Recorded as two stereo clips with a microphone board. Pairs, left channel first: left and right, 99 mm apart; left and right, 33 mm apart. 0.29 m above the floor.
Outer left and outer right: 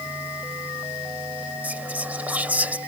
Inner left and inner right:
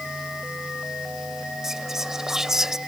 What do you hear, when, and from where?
1.6 s whispering: 15° right (ahead or behind)